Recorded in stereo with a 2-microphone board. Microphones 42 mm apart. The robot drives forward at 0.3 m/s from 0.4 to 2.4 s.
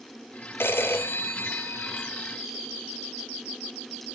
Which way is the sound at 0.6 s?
65° left (ahead or behind).